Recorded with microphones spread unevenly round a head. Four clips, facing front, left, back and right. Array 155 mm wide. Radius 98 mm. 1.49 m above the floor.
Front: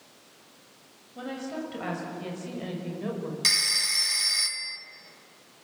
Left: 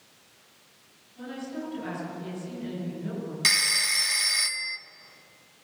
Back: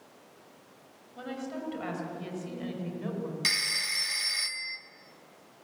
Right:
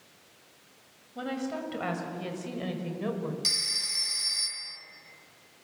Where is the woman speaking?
60° right, 7 m; by 3.3 s 55° right, 6 m.